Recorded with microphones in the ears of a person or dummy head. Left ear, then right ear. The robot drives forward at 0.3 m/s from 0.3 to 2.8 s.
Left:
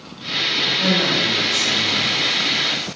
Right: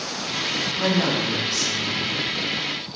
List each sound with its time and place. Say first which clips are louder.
0.8 s a man speaking: left 4 dB; 25° right (ahead or behind), 1.5 m; by 2.1 s 20° right (ahead or behind), 1.8 m